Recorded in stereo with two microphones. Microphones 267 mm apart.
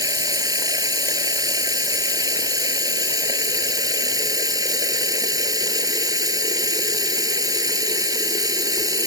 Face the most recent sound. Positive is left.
turn(degrees=-15)  # may be behind; listen again after turning